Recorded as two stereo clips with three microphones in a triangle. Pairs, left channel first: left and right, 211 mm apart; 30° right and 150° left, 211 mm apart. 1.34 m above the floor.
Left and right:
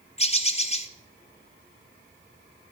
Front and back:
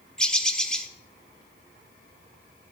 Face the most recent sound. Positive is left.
turn(degrees=55)